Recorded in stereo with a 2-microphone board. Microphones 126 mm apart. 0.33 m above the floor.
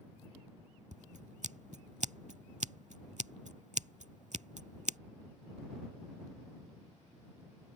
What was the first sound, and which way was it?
Scissors, 70° right (ahead or behind).